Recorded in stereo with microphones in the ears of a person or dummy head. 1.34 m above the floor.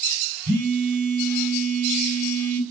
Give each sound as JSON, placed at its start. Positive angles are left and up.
{"t": 0.5, "sound": "a phone buzzing", "side_deg": -50, "distance_m": 9.5}